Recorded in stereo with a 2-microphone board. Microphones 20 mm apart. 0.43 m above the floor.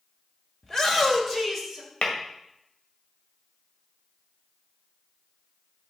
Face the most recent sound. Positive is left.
turn(degrees=55)  # may be behind; listen again after turning